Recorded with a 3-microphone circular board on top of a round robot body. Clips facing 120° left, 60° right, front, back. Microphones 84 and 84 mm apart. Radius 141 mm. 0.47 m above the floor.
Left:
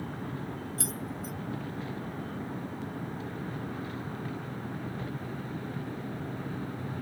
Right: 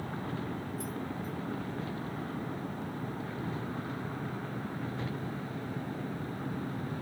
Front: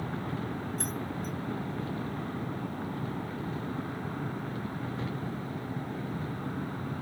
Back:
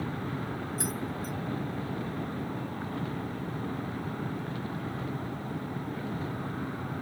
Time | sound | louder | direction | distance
0.8 | keys jangling | even, back 1 dB | 100° left | ?